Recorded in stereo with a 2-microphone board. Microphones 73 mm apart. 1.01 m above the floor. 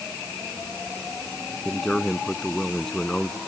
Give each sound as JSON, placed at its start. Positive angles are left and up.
{"t": 1.6, "sound": "a man speaking", "side_deg": 5}